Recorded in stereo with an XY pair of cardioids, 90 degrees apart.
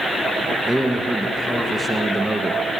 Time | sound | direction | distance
0.7 | a man speaking | 15° right | 1.3 m